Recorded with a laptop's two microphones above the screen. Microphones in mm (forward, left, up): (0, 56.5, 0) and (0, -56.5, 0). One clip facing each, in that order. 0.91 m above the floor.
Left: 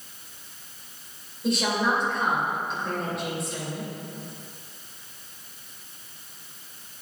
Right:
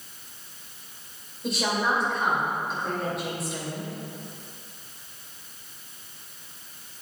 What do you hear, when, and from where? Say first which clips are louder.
1.4 s a woman speaking: left 2 dB; centre (ahead or behind), 3 m